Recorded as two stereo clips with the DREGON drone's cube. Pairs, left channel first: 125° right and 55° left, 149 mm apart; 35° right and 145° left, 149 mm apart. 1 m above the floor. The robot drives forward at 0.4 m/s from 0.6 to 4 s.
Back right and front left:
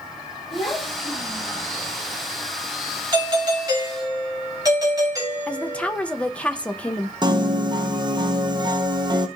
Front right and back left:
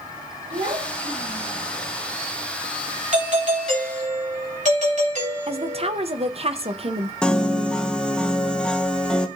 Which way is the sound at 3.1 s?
115° left.